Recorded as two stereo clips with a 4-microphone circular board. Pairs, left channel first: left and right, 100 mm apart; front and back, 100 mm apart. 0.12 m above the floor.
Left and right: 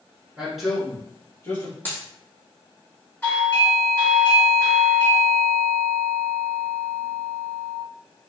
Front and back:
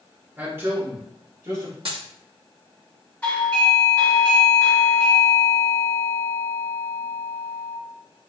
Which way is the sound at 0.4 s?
155° right.